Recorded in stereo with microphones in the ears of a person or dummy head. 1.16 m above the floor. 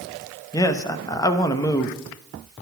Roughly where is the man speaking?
Centre.